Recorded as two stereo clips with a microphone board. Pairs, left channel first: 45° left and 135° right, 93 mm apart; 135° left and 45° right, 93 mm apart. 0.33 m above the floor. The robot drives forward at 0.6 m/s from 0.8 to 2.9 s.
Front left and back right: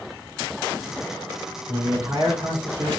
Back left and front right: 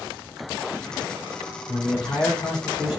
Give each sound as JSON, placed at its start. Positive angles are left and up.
{"t": 1.7, "sound": "a man speaking", "azimuth_deg": 160, "distance_m": 3.0}